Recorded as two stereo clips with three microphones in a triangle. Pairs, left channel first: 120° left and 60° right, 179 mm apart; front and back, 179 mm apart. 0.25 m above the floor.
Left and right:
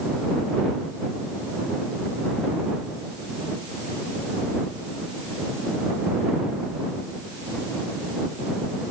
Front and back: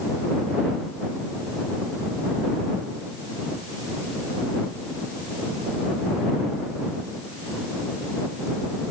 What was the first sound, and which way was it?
Only background noise.